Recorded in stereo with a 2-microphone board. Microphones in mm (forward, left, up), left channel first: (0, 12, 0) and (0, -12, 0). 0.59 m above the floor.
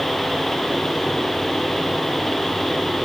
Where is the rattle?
No rattle in this recording.